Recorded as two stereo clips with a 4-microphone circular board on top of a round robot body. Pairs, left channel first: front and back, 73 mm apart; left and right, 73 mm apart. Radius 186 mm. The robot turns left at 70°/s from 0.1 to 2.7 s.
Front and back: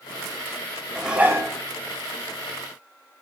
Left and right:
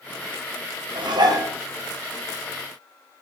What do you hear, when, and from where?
0.9 s dishes clattering: 95° right, 1.6 m; by 1.5 s 130° right, 1.6 m